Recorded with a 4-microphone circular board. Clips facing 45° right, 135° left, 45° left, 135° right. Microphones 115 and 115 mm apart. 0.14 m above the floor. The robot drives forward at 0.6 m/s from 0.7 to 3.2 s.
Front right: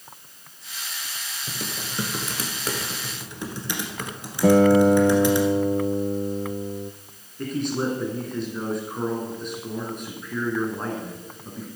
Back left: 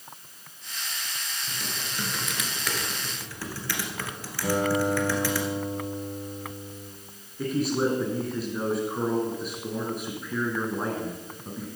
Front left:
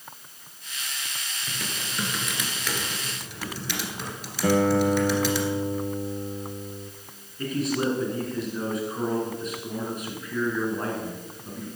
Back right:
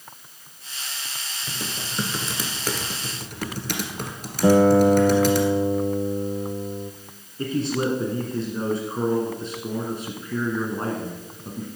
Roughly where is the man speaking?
Behind right.